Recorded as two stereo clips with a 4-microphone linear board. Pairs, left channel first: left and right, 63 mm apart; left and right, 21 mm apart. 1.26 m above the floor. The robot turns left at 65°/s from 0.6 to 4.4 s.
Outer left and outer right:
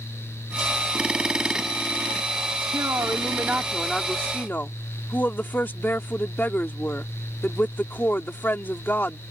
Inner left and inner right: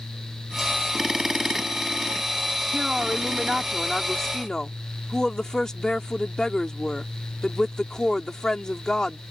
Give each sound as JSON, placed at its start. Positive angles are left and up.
{"t": 2.7, "sound": "a woman speaking", "azimuth_deg": -105}